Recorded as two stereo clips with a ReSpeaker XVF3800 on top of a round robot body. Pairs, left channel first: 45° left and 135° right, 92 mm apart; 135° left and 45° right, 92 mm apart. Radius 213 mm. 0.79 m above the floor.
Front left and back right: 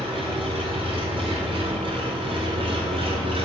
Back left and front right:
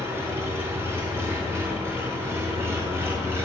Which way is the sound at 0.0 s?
110° right.